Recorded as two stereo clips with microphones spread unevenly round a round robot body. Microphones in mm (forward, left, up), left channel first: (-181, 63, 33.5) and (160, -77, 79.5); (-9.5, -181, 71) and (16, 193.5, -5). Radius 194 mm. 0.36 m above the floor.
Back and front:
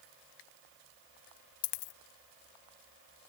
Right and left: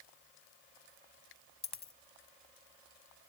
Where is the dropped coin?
170° right.